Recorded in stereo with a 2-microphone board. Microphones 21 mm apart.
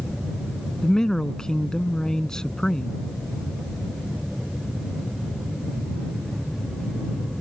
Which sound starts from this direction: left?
A man speaking, at 0.8 s.